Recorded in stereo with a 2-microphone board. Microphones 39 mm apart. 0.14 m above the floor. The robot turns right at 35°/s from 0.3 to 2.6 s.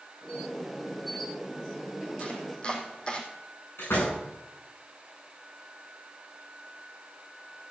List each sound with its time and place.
2.2 s chopping: 40° left (ahead or behind), 3 m; by 3.2 s 25° left (ahead or behind), 3 m
3.8 s a door slam: 85° left, 9 m